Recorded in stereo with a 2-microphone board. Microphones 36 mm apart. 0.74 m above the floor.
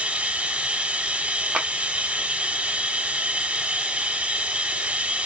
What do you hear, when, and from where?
0.0 s running water: 35° right (ahead or behind), 0.8 m
1.5 s a clap: 25° right (ahead or behind), 1.1 m